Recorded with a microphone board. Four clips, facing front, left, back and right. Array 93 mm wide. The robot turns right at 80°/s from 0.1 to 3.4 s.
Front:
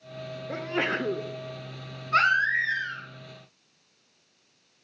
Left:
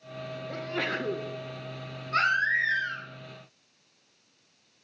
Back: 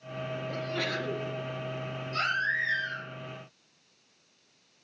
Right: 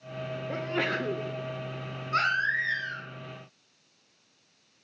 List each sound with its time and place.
0.5 s a sneeze: 40° right, 0.8 m; by 1.3 s 25° left, 0.8 m
2.1 s a baby crying: 10° right, 4 m; by 3.0 s 65° left, 4 m